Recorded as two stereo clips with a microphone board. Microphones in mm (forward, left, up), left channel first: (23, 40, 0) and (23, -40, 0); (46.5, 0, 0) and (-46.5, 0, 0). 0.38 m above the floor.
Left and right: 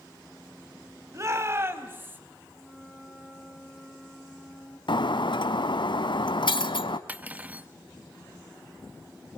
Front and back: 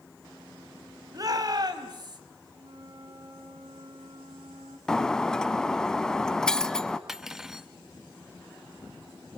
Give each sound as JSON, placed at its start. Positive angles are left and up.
{"t": 1.1, "sound": "a shout", "azimuth_deg": -135, "distance_m": 2.5}
{"t": 2.6, "sound": "a flute", "azimuth_deg": 180, "distance_m": 4.0}
{"t": 4.9, "sound": "breaking glass", "azimuth_deg": 85, "distance_m": 0.9}
{"t": 7.1, "sound": "cutlery clinking", "azimuth_deg": -105, "distance_m": 0.6}